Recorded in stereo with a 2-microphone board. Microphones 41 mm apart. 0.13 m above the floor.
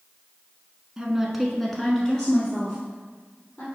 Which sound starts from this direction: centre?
A woman speaking, at 1.0 s.